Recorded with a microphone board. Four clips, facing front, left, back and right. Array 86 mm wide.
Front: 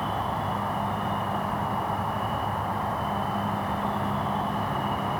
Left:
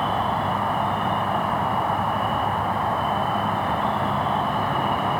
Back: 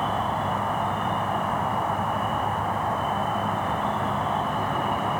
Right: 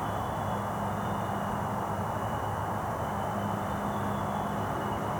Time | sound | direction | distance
0.0 | an insect | 105° left | 1.1 m